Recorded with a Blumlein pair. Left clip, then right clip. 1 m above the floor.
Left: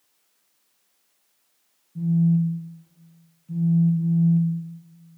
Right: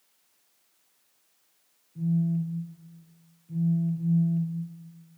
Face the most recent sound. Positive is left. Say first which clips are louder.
# left 6 dB
turn(degrees=30)